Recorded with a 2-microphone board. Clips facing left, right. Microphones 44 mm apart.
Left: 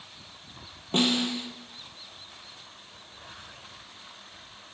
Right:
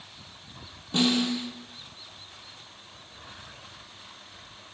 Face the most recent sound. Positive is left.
turn(degrees=45)  # may be behind; listen again after turning